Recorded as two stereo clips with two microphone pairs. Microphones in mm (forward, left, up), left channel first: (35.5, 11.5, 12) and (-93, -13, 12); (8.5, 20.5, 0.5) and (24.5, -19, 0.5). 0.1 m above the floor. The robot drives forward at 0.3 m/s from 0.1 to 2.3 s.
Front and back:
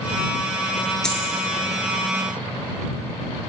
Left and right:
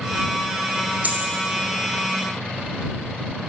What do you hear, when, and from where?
1.0 s a dropped coin: 75° right, 0.7 m; by 1.2 s 80° right, 0.7 m